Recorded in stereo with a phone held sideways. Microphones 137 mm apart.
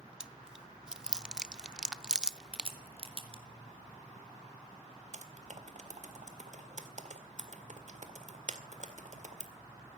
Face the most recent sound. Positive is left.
turn(degrees=-60)  # may be behind; listen again after turning